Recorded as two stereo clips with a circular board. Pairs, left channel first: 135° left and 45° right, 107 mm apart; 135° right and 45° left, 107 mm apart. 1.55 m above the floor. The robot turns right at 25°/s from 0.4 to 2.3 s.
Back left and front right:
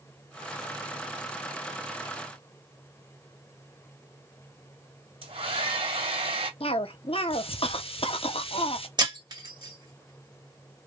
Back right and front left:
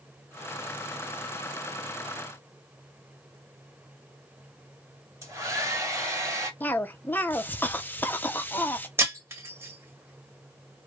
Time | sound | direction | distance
5.2 | a hair dryer | 15° right | 2 m
6.6 | a cough | 155° left | 0.8 m
9.0 | breaking glass | 15° right | 1.8 m